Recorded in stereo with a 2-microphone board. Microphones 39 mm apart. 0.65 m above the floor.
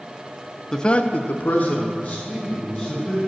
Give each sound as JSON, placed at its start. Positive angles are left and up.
{"t": 0.7, "sound": "a man speaking", "side_deg": 15, "distance_m": 0.7}